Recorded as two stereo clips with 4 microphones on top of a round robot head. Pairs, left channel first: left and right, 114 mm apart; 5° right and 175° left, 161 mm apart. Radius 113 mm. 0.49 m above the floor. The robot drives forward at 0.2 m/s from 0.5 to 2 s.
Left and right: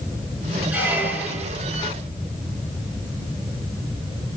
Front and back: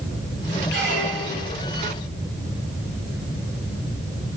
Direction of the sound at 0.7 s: 165° right.